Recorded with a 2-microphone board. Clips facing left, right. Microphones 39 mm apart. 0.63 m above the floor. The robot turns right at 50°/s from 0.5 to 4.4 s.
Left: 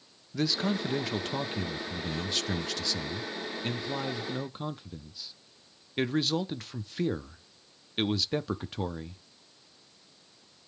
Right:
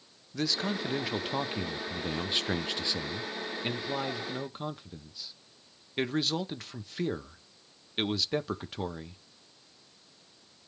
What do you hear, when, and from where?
0.3 s a man speaking: 5° left (ahead or behind), 0.5 m; by 9.2 s centre (ahead or behind), 0.5 m